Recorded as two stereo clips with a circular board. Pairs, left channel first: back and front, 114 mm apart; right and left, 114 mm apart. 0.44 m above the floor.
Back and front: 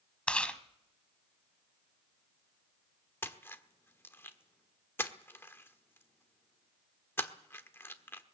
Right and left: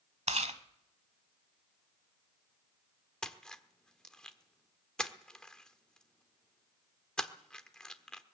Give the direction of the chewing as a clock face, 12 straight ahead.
9 o'clock.